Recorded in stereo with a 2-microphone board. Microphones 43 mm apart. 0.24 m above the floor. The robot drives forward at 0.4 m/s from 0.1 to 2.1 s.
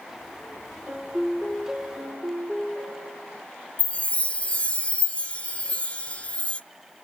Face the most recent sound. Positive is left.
turn(degrees=30)  # may be behind; listen again after turning